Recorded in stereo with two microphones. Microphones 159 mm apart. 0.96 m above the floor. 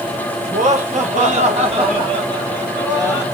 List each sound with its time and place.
0.5 s laughter: 50° right (ahead or behind), 1.2 m; by 3.2 s 15° right (ahead or behind), 1.4 m